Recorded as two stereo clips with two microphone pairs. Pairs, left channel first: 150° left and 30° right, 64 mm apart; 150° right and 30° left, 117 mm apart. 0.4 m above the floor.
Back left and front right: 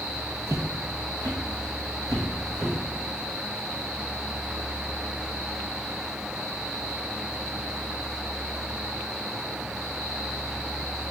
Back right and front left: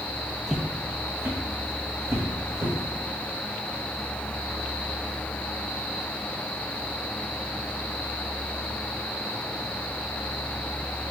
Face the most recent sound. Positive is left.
turn(degrees=-25)